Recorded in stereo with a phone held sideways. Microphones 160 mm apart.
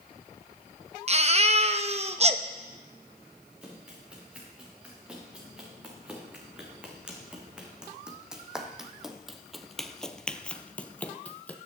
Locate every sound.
1.1 s a baby crying: 40° right (ahead or behind), 0.7 m
3.6 s running footsteps: 5° right (ahead or behind), 5.5 m; by 11.6 s 10° left (ahead or behind), 1.4 m